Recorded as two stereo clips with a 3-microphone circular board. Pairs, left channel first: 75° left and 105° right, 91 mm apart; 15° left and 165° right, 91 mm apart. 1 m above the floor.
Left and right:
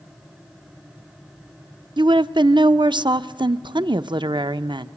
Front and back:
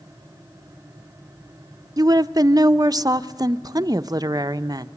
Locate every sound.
2.0 s a woman speaking: 125° right, 0.7 m